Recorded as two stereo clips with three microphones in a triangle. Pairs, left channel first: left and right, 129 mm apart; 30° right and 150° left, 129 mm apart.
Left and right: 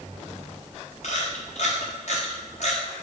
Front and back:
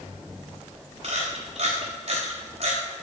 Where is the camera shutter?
110° left, 3.5 m.